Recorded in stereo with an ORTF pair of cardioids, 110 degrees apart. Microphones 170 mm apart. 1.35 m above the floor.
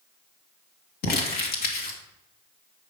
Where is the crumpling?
65° left, 2 m.